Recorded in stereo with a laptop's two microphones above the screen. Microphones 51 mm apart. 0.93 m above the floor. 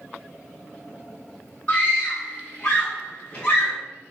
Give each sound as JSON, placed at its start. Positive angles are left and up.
{"t": 1.7, "sound": "a scream", "side_deg": 25, "distance_m": 1.7}